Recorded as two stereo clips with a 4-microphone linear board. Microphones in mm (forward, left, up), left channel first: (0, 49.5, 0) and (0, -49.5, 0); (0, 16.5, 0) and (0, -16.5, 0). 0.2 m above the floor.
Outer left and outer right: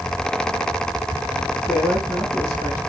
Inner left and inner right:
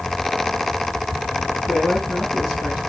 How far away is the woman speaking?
About 3 m.